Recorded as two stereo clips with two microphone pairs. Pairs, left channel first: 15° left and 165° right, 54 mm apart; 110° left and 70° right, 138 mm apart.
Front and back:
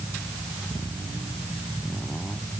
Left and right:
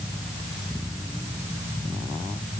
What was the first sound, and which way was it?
Only background noise.